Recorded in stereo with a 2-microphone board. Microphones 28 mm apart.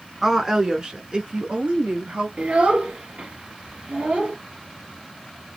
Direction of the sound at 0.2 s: 15° right (ahead or behind).